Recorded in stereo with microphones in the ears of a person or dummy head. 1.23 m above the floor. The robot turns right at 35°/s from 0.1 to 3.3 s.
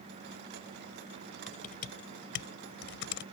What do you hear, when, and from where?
1.5 s typing on a keyboard: 45° left (ahead or behind); by 3.2 s 75° left (ahead or behind)